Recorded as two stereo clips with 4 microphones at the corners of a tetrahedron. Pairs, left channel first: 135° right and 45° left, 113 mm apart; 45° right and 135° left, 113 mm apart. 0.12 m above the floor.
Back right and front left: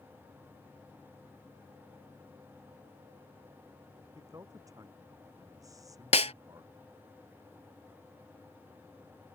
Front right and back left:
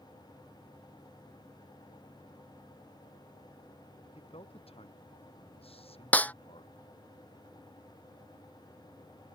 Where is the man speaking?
15° right.